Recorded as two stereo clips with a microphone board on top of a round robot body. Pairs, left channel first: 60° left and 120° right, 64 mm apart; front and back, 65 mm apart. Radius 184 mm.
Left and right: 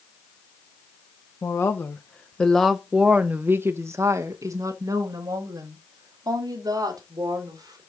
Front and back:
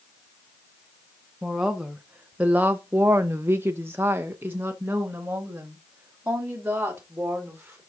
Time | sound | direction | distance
1.4 | a woman speaking | 100° left | 1.2 m